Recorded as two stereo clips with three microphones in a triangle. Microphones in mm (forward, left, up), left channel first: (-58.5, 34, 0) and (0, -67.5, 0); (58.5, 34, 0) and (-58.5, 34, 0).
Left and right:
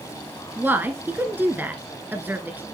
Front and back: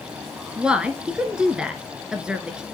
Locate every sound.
0.6 s a woman speaking: 105° right, 1.1 m